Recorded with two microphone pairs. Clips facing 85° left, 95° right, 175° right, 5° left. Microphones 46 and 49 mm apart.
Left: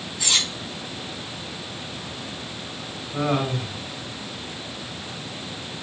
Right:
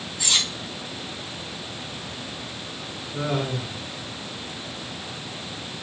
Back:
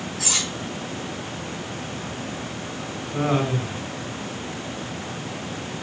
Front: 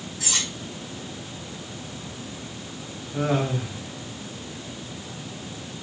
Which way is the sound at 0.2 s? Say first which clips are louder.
Even, back 1 dB; 165° left.